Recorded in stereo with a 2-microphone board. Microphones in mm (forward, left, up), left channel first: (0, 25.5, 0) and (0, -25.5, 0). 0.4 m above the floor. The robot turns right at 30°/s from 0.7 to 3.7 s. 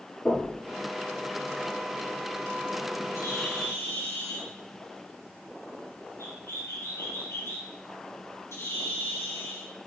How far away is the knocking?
About 5 m.